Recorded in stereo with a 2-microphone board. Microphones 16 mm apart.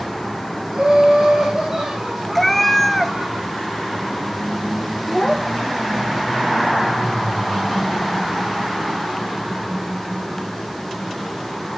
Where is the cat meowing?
15° left (ahead or behind), 0.7 m.